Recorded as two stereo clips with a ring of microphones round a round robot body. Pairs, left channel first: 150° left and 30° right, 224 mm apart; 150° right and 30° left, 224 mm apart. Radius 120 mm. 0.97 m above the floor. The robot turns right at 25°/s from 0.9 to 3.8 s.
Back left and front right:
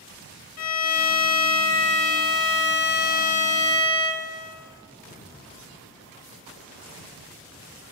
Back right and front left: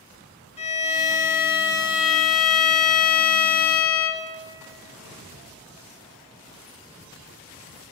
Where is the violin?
145° left, 0.8 m; by 4.3 s 140° right, 0.8 m.